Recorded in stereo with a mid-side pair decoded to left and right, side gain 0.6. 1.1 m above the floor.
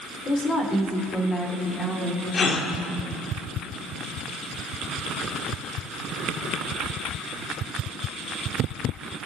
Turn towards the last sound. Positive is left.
turn(degrees=35)